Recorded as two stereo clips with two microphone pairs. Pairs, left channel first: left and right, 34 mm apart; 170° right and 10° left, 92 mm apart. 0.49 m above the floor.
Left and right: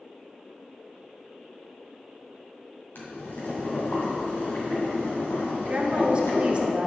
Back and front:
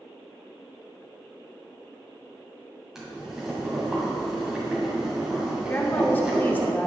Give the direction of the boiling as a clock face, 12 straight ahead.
9 o'clock.